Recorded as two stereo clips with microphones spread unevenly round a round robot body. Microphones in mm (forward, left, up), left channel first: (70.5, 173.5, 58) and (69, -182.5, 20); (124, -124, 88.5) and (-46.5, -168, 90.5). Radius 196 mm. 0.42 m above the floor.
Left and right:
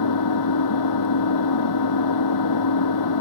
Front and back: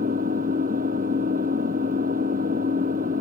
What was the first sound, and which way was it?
An engine running, 135° left.